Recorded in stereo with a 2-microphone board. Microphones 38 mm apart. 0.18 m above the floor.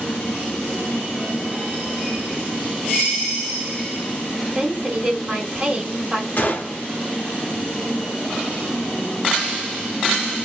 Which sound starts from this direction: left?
A gunshot, at 6.4 s.